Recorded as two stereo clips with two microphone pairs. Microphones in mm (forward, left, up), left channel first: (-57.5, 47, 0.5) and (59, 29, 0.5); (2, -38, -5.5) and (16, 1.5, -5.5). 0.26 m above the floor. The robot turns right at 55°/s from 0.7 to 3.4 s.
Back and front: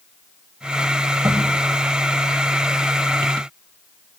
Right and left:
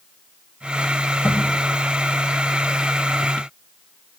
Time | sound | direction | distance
1.2 | a thud | 75° right | 8.5 m